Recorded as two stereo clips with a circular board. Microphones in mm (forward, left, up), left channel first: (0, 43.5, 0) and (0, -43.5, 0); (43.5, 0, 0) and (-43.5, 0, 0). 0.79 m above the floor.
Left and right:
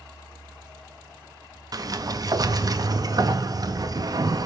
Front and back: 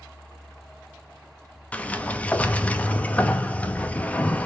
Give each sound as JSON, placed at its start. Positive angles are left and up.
{"t": 1.7, "sound": "a sliding door", "azimuth_deg": -70, "distance_m": 0.6}